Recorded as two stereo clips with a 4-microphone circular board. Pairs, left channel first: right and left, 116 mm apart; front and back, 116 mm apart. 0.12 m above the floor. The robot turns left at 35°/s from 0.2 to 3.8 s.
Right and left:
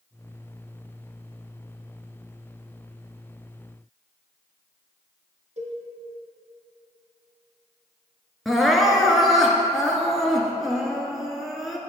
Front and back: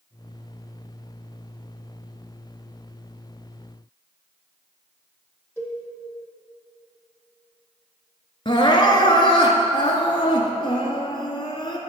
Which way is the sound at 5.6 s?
75° left.